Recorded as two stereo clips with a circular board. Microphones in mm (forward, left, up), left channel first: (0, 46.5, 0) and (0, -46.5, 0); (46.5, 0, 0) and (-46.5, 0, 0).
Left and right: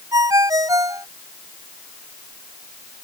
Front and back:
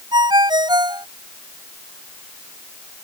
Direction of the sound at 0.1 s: 140° right.